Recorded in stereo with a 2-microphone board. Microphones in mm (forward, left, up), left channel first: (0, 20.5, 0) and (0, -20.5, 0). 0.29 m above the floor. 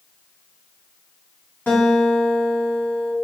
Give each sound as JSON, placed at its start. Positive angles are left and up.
{"t": 1.7, "sound": "a guitar", "side_deg": 45, "distance_m": 2.5}